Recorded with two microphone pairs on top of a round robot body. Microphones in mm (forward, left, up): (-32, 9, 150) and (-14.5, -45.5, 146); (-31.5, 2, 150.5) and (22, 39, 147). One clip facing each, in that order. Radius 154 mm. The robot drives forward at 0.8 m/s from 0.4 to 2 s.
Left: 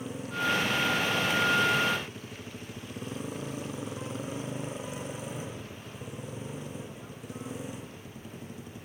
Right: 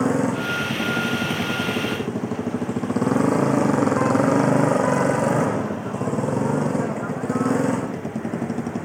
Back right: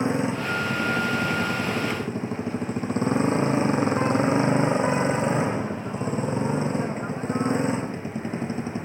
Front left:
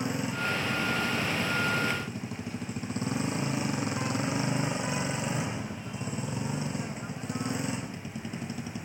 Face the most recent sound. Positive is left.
turn(degrees=-85)